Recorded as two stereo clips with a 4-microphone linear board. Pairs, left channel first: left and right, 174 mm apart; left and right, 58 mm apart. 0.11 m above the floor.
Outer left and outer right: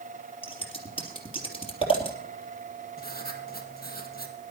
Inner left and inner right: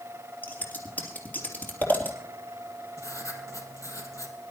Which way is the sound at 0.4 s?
35° left (ahead or behind).